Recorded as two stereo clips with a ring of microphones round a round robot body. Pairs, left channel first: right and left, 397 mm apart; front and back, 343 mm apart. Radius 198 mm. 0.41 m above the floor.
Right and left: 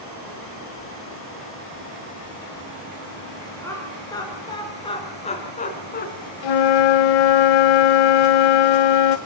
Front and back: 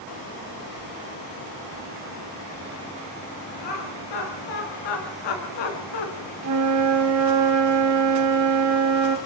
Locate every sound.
3.6 s laughter: 5° right, 6 m; by 6.1 s 25° right, 3.5 m
6.4 s a flute: 125° right, 0.7 m